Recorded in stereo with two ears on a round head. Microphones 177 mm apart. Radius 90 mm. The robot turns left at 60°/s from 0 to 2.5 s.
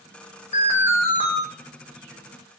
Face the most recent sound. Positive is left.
turn(degrees=-85)